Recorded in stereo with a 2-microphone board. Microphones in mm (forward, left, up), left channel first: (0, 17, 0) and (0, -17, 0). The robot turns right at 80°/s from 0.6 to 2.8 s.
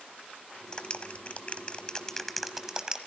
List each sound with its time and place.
0.7 s a clap: 25° left (ahead or behind), 1.2 m; by 3.0 s 20° right (ahead or behind), 1.2 m